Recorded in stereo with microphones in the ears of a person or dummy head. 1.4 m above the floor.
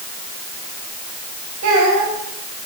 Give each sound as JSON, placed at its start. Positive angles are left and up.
{"t": 1.6, "sound": "a child speaking", "side_deg": -65, "distance_m": 5.5}